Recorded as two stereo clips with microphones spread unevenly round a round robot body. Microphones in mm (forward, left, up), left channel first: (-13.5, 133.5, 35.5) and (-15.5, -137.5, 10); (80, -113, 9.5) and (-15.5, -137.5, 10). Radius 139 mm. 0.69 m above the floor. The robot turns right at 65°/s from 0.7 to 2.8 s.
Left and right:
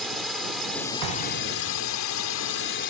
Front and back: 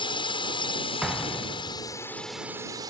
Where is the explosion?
85° right; by 2.0 s 15° right.